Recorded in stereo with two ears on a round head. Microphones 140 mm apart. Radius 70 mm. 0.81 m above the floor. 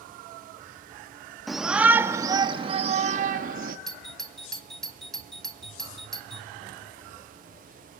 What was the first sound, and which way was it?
A shout, centre (ahead or behind).